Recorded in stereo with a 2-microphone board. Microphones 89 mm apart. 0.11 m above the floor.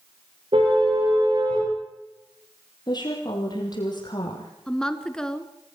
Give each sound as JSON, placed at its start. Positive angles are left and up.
{"t": 0.5, "sound": "a car horn", "side_deg": -70, "distance_m": 8.5}
{"t": 2.9, "sound": "a woman speaking", "side_deg": 45, "distance_m": 4.5}
{"t": 4.7, "sound": "a woman speaking", "side_deg": 5, "distance_m": 1.2}